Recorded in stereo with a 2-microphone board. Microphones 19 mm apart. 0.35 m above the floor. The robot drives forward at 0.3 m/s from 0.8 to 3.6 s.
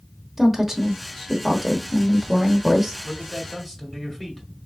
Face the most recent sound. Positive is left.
turn(degrees=15)  # may be behind; listen again after turning